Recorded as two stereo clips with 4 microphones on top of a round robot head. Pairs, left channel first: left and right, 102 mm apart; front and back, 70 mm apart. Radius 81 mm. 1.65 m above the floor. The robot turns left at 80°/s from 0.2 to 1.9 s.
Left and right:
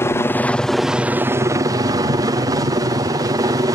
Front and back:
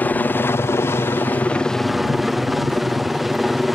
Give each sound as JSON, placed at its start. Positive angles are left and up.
{"t": 0.0, "sound": "a helicopter", "azimuth_deg": 45}